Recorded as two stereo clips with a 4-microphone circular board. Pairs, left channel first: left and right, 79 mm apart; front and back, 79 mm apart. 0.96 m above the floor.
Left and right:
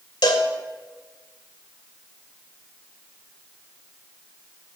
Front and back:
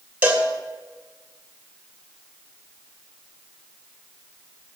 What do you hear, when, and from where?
0.2 s a cowbell: 110° left, 1.9 m